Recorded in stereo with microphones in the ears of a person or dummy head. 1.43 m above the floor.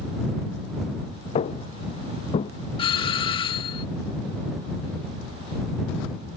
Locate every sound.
1.4 s footsteps: 40° left (ahead or behind)
2.8 s a doorbell: 35° left (ahead or behind)